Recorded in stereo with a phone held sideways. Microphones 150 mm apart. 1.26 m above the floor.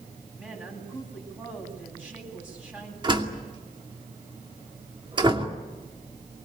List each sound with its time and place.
0.4 s a woman speaking: 10° right (ahead or behind), 9 m
3.0 s a door slam: 30° right (ahead or behind), 2.5 m